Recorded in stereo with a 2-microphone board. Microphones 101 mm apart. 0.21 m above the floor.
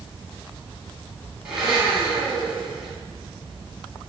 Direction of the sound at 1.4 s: 10° right (ahead or behind).